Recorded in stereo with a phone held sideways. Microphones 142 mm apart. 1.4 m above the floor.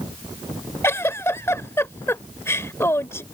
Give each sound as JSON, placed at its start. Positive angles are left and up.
{"t": 0.8, "sound": "a giggle", "side_deg": 20}